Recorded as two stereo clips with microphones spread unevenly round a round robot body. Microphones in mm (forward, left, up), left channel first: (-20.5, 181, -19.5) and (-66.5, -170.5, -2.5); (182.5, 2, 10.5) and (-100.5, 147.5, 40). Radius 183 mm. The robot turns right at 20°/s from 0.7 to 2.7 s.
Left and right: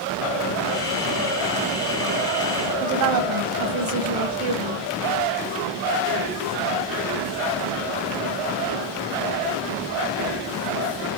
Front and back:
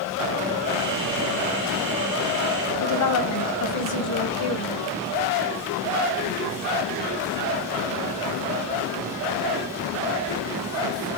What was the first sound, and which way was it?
A woman speaking, 65° right.